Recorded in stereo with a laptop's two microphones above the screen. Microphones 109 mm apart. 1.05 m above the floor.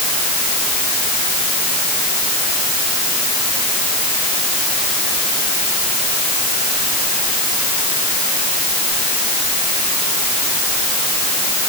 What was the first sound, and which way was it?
Only background noise.